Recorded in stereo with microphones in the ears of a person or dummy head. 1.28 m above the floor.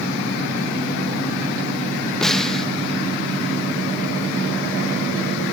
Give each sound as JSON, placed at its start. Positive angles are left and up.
{"t": 2.2, "sound": "a snare drum", "side_deg": 5, "distance_m": 0.7}